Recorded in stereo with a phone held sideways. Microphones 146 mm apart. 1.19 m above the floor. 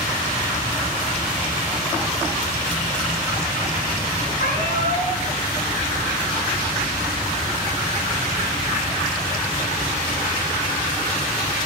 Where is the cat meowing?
80° left, 7 m.